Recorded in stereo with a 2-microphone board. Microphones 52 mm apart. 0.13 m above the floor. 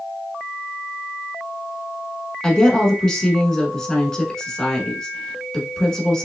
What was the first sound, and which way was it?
A woman speaking, 15° left (ahead or behind).